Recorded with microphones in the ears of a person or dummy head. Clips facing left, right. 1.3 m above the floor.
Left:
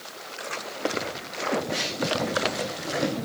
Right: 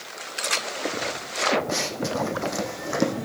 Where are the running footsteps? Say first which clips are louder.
Right 1 dB; 60° right (ahead or behind), 3.5 m; by 3.1 s 65° right (ahead or behind), 4 m.